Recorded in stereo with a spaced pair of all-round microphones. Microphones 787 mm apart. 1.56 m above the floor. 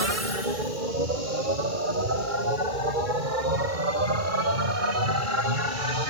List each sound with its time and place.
0.0 s a machine running: 85° right